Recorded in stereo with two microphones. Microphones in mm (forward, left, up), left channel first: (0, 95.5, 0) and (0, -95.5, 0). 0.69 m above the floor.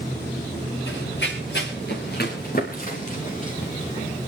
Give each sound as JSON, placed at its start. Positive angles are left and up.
{"t": 0.9, "sound": "running footsteps", "side_deg": 80, "distance_m": 4.0}